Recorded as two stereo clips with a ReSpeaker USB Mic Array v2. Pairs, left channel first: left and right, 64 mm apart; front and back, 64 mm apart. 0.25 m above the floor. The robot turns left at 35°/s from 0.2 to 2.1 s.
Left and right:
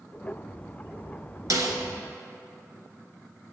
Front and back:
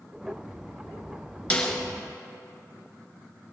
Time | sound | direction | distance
1.5 | a snare drum | 70° right | 1.6 m